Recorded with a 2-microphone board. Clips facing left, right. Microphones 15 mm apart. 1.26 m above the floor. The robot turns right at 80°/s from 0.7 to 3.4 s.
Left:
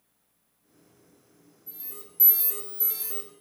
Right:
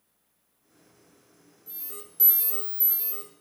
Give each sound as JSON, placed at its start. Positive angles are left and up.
{"t": 1.7, "sound": "an alarm", "azimuth_deg": -75, "distance_m": 3.0}